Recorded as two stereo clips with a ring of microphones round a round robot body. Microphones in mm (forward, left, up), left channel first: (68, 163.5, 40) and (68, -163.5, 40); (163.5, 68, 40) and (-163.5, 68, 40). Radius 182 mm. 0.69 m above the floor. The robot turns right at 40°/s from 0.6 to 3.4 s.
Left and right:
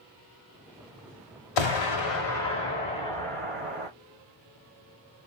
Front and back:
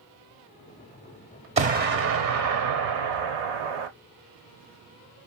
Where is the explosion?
110° left, 1.0 m; by 3.9 s straight behind, 1.0 m.